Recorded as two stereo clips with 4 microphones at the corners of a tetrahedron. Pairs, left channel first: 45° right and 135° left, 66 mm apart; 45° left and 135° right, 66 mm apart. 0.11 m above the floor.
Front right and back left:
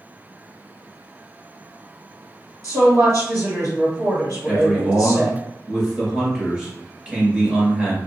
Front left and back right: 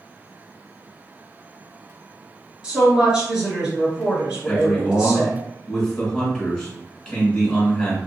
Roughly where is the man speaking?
Left.